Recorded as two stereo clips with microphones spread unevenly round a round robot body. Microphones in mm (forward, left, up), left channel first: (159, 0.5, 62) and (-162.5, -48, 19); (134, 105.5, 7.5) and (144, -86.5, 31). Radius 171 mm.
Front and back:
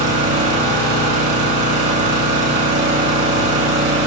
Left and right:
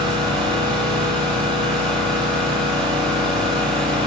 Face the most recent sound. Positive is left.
turn(degrees=-145)